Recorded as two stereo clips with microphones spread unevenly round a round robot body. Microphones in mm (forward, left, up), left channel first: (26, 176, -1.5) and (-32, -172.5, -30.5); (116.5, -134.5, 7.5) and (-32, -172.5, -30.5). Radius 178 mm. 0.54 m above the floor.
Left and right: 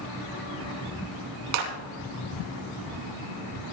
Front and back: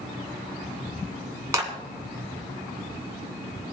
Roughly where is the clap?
Right.